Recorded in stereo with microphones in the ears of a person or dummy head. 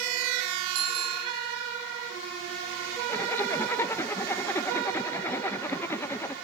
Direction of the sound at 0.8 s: 50° right (ahead or behind).